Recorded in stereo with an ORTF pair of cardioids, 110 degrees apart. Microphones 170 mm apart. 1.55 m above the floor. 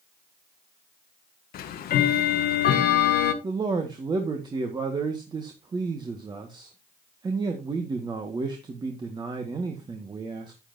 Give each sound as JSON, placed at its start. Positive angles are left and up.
{"t": 1.5, "sound": "ticking", "azimuth_deg": 65, "distance_m": 1.4}
{"t": 3.4, "sound": "a man speaking", "azimuth_deg": -25, "distance_m": 1.8}